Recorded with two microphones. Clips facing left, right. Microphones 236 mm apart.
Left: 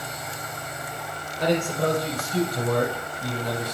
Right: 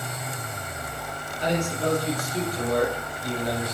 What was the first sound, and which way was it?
A man speaking, 60° left (ahead or behind).